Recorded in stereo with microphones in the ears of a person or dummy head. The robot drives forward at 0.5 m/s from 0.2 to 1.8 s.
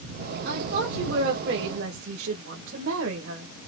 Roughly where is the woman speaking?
Right.